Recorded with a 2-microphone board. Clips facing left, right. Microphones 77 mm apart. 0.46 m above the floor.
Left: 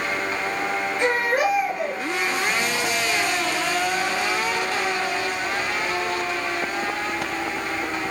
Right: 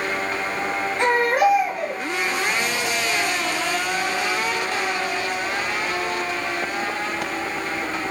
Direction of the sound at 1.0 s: 70° right (ahead or behind).